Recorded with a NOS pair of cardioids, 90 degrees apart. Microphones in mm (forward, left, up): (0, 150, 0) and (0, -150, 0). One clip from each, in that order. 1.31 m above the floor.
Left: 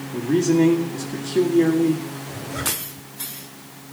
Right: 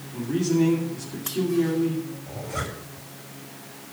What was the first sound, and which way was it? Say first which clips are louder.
A man speaking: left 5 dB; 60° left.